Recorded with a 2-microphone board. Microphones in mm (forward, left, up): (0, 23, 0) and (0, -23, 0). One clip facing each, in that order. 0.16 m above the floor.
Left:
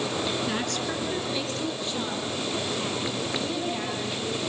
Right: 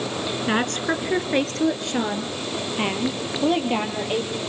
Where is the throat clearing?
No throat clearing in this recording.